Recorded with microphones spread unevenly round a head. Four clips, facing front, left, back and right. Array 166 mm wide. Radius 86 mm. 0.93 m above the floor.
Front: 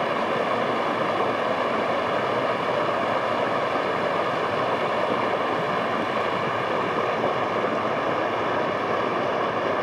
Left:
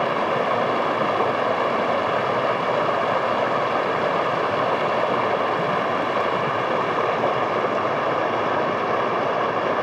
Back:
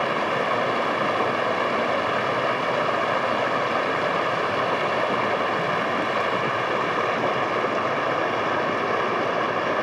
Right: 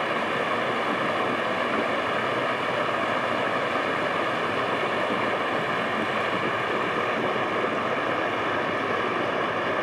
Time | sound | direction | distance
0.0 | running water | 75° left | 0.7 m